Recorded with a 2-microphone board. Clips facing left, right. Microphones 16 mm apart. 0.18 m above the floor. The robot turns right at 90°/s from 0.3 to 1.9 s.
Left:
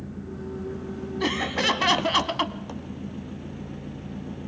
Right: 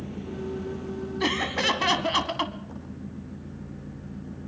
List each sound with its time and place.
0.0 s an engine running: 65° right, 3 m; by 4.5 s 80° left, 3 m
1.2 s laughter: 10° right (ahead or behind), 1.1 m; by 2.6 s 10° left (ahead or behind), 1.1 m